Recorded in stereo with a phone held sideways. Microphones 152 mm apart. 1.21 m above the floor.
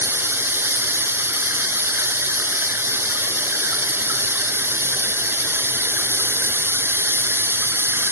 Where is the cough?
No cough in this recording.